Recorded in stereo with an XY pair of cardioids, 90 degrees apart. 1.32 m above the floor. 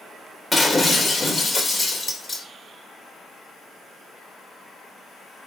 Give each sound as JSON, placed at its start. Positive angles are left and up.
{"t": 0.5, "sound": "breaking glass", "azimuth_deg": 20, "distance_m": 2.5}